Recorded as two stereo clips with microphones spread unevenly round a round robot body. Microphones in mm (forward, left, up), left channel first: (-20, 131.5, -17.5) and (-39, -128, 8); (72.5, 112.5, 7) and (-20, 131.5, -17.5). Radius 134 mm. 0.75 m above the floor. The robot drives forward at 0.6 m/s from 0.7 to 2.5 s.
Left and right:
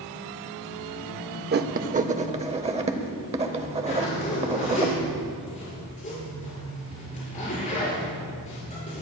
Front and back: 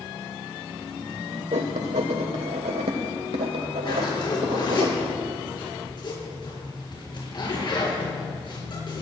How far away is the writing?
About 0.7 m.